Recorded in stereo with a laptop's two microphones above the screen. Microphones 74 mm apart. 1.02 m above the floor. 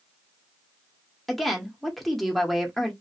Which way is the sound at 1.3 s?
Centre (ahead or behind).